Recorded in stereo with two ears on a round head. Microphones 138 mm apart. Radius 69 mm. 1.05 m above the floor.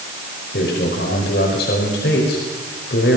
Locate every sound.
0.5 s a man speaking: 75° left (ahead or behind), 5 m